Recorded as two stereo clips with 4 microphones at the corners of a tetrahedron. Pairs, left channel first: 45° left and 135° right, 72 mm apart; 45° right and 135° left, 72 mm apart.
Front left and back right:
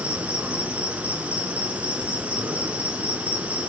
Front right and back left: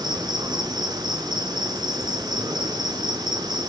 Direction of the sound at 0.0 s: 150° left.